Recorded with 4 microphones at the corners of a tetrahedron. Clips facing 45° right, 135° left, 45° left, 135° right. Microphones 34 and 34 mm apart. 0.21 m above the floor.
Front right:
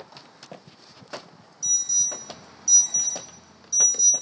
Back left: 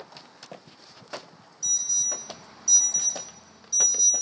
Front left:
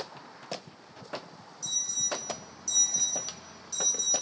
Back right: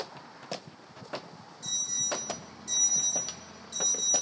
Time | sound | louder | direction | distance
1.6 | an alarm | front right 2 dB, even | 155° right | 2.0 m